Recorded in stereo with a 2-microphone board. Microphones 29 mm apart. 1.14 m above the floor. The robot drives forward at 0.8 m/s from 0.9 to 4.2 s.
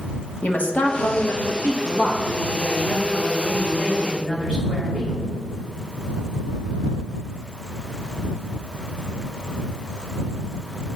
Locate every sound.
0.4 s a woman speaking: 75° left (ahead or behind), 1.2 m; by 5.2 s 25° left (ahead or behind), 2.5 m